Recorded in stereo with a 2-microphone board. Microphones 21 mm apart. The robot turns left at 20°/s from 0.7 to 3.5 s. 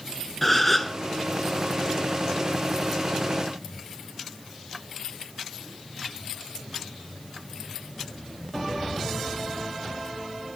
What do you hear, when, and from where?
0.4 s a gasp: 10° left (ahead or behind), 0.8 m; by 1.0 s 5° left (ahead or behind), 0.8 m